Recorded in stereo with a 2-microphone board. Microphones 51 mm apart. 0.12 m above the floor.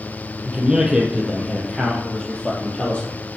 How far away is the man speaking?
About 3 m.